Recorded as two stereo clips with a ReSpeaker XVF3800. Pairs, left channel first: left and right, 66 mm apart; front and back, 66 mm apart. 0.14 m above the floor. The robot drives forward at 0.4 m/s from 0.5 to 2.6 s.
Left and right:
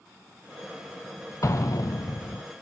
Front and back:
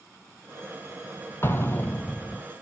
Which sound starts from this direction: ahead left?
An explosion, at 1.4 s.